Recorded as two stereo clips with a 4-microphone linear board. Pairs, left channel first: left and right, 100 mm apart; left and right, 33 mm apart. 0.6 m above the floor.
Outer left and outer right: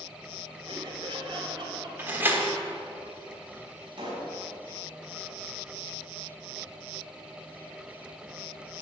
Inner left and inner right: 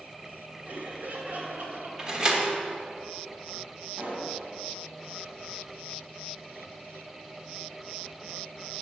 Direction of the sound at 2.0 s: 20° right (ahead or behind).